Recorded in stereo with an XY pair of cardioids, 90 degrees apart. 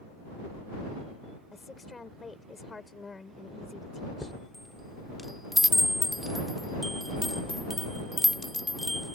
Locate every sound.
1.5 s a woman speaking: 30° left
4.2 s a chime: 10° left